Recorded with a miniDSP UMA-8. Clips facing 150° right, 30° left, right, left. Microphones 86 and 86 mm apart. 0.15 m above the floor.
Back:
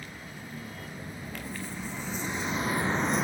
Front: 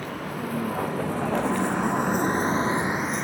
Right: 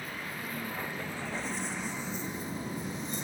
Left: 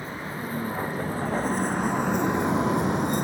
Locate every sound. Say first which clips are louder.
0.0 s a vehicle: front 13 dB, left 6 dB; 25° left; by 3.2 s 125° left